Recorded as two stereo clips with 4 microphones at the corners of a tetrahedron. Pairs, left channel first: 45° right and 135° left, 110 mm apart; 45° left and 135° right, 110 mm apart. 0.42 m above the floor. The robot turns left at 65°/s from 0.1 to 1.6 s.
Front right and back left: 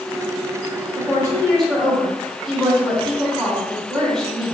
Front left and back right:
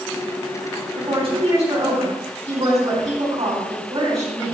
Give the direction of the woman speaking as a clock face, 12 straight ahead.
3 o'clock.